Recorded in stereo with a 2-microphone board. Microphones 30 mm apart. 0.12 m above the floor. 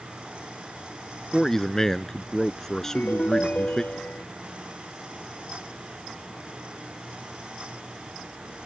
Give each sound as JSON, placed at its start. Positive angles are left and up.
{"t": 1.3, "sound": "a man speaking", "side_deg": 15}
{"t": 2.8, "sound": "a ringtone", "side_deg": 75}